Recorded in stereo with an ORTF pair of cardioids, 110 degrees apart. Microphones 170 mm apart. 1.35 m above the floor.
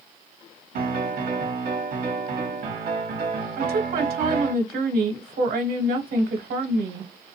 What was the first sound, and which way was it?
A piano, 55° right.